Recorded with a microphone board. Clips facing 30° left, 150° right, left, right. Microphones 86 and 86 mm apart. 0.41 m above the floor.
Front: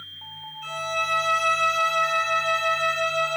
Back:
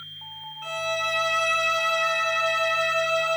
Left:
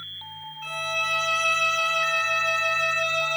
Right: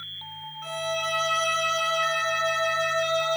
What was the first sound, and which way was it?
A violin, 135° right.